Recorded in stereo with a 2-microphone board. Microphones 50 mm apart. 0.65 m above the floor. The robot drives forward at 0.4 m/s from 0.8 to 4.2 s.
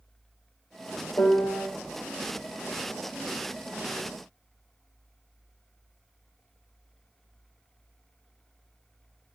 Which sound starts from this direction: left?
A piano, at 1.2 s.